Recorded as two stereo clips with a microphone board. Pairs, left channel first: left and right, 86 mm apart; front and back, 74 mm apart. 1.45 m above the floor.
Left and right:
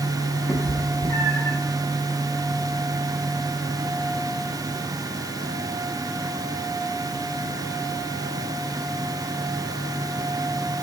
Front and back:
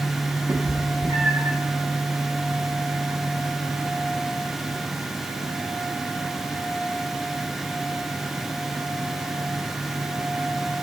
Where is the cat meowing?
145° left, 1.1 m; by 1.6 s 140° left, 1.9 m.